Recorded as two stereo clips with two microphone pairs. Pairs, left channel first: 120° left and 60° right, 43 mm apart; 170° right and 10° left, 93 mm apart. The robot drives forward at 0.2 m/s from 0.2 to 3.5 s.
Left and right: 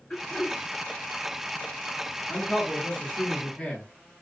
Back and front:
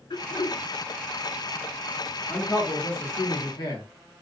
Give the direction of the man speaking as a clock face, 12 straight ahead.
6 o'clock.